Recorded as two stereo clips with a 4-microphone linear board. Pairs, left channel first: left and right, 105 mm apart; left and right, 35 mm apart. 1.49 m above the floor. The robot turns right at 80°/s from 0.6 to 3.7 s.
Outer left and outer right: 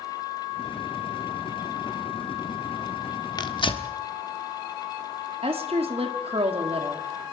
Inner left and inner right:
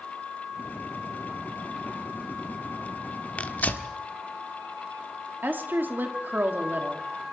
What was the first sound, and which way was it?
Tearing paper, 40° left (ahead or behind).